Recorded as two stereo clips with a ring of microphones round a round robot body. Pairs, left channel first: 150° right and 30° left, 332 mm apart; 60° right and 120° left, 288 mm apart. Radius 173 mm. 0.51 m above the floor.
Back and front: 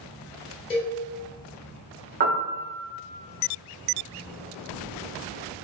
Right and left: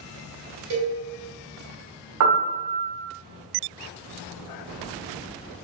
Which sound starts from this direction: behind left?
A cowbell, at 0.7 s.